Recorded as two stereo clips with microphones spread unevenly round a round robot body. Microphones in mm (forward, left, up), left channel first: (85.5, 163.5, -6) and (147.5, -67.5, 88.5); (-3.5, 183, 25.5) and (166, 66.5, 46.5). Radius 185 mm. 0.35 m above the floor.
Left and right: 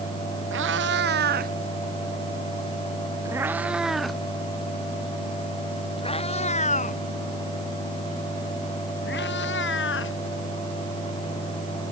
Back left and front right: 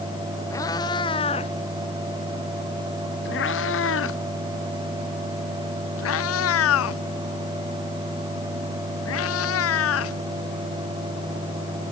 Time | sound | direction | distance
0.5 | a cat meowing | 130° right | ?